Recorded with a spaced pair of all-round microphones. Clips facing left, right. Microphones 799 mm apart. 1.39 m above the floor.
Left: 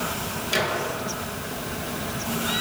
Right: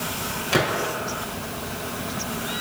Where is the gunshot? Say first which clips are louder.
Right 4 dB; 80° right, 5 m.